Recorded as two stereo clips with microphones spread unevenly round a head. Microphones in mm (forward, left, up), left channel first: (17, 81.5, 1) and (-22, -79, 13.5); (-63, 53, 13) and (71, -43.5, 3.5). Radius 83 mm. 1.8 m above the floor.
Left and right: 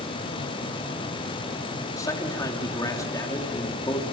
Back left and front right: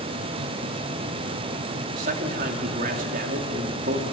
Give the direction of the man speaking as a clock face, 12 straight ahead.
12 o'clock.